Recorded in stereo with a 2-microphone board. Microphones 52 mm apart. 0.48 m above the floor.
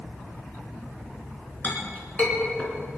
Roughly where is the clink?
Left.